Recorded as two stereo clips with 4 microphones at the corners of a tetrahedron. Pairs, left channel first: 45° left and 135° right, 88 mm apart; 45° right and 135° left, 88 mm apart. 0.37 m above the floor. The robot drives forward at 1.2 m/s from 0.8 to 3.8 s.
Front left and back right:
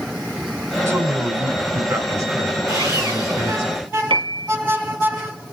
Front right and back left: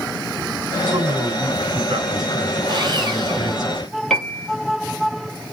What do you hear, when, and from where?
0.9 s a man speaking: 165° left, 2.5 m; by 3.7 s 175° left, 5.5 m
2.7 s sawing: 175° left, 4.5 m
4.1 s a piano: 130° right, 1.8 m